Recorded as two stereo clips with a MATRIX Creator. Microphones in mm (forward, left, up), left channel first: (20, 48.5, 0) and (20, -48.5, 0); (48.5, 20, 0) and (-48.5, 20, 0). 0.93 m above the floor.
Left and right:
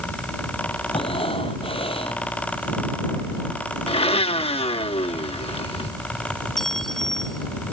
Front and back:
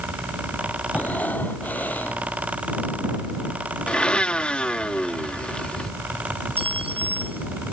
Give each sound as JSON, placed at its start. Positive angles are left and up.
{"t": 0.9, "sound": "breathing", "azimuth_deg": 75}
{"t": 3.9, "sound": "a blender", "azimuth_deg": 80}
{"t": 6.6, "sound": "a clink", "azimuth_deg": 175}